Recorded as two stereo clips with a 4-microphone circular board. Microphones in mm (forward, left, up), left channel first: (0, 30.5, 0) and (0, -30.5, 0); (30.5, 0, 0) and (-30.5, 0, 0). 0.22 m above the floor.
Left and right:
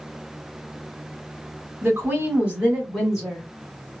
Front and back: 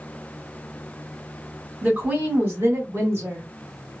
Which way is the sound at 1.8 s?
120° right.